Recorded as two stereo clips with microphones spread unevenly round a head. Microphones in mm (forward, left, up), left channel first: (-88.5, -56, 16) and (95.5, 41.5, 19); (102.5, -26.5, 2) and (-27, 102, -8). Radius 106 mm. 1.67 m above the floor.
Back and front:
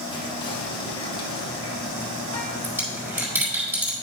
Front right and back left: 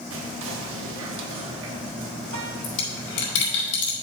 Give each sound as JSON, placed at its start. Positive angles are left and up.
{"t": 0.1, "sound": "whispering", "azimuth_deg": 140, "distance_m": 1.3}
{"t": 2.6, "sound": "a dropped coin", "azimuth_deg": -50, "distance_m": 4.0}